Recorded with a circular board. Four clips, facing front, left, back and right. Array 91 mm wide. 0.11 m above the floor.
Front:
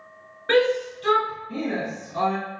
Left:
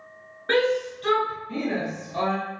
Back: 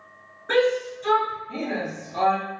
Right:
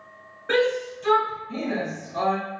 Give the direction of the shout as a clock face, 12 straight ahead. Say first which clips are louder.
Even, front 1 dB; 11 o'clock.